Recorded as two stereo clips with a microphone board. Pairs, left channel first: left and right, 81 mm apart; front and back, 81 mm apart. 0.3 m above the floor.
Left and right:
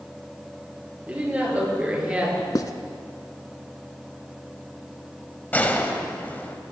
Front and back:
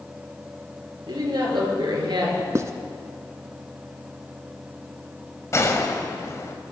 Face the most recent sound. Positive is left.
turn(degrees=30)